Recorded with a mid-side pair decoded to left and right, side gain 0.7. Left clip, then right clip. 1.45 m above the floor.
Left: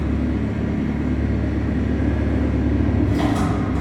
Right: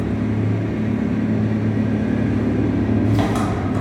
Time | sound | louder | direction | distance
0.0 | an engine running | right 1 dB | 40° right | 1.1 m